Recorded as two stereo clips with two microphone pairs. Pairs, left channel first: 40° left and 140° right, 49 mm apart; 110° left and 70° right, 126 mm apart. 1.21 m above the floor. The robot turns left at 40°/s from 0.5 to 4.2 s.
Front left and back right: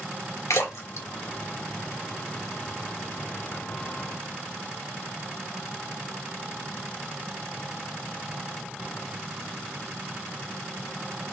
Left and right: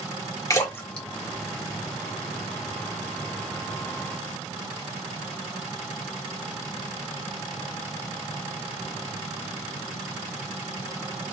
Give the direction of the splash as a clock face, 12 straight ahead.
10 o'clock.